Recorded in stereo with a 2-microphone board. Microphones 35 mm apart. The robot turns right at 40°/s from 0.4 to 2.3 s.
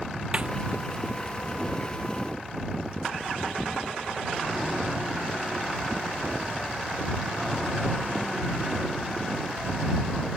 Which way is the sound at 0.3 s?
30° right (ahead or behind).